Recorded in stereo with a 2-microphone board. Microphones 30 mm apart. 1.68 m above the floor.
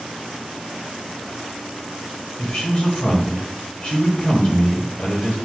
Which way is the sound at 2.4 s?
55° left (ahead or behind).